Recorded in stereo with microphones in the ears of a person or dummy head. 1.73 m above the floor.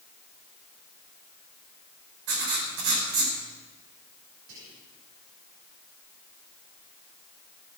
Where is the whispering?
80° right, 7 m.